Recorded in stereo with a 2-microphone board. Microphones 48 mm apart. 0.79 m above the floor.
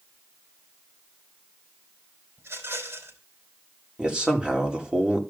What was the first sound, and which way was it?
A rattle, 70° right (ahead or behind).